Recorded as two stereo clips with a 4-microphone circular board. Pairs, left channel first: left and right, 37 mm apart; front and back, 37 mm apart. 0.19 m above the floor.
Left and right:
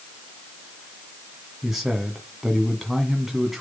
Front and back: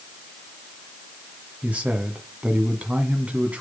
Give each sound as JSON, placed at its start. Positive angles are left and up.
{"t": 1.6, "sound": "a man speaking", "azimuth_deg": -170, "distance_m": 1.7}